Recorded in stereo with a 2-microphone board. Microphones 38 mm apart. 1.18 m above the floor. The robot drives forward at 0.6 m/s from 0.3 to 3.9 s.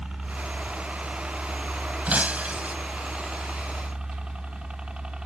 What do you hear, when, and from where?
0.0 s a helicopter: 20° right (ahead or behind); by 5.3 s 25° right (ahead or behind)
2.1 s breaking glass: 35° right (ahead or behind)